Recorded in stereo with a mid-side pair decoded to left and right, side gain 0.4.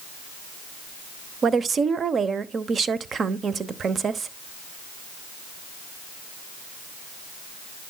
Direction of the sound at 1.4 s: 50° right.